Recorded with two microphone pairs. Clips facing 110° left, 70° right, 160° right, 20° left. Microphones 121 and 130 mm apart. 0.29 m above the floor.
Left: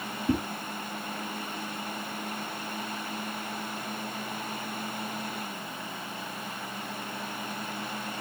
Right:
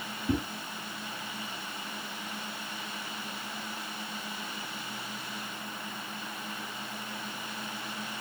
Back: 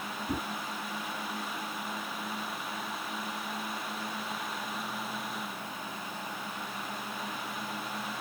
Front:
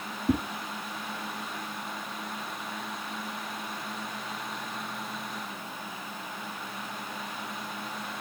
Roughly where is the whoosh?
Ahead left.